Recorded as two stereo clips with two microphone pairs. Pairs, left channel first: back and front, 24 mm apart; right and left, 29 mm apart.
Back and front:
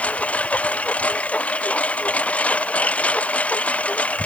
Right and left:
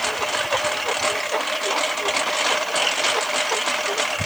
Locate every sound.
0.0 s a lawn mower: straight behind; by 4.3 s 175° left